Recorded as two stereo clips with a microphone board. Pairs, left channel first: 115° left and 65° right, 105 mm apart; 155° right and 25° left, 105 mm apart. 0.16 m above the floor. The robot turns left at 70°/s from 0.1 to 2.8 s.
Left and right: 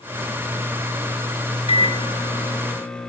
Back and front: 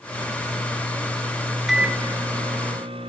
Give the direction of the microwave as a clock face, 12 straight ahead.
8 o'clock.